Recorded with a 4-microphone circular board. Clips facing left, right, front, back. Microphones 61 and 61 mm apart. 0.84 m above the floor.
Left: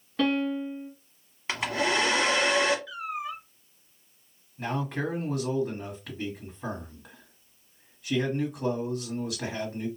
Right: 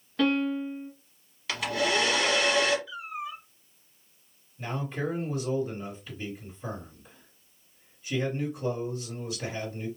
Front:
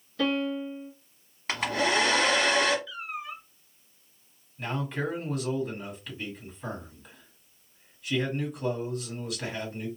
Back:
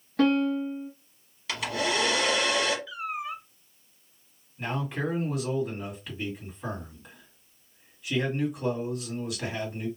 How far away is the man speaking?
About 1.8 m.